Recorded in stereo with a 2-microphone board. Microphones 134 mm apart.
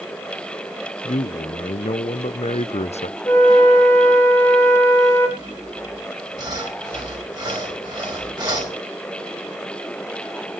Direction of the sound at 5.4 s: 35° right (ahead or behind).